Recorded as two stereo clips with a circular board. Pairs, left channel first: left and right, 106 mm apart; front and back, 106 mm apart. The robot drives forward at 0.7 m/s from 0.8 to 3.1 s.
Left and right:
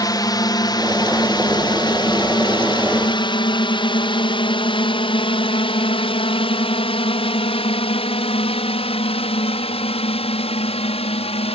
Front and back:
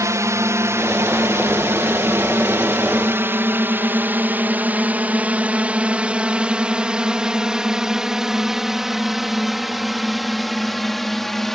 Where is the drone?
130° left; by 11.6 s 85° left.